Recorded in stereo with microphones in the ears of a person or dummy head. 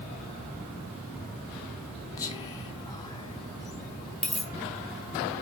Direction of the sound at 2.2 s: 25° left (ahead or behind).